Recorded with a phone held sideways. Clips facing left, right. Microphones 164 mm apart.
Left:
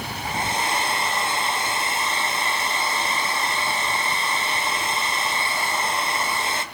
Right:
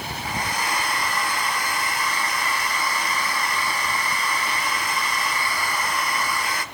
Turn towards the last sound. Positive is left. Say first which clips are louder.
# left 2 dB
turn(degrees=25)  # may be behind; listen again after turning